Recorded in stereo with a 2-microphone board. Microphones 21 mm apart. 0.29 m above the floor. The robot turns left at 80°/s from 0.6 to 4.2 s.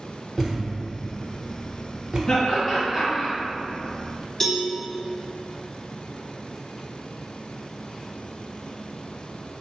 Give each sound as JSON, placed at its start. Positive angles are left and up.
{"t": 0.4, "sound": "a thud", "side_deg": -5, "distance_m": 0.9}
{"t": 2.3, "sound": "laughter", "side_deg": 40, "distance_m": 1.8}
{"t": 4.4, "sound": "a cowbell", "side_deg": 10, "distance_m": 0.6}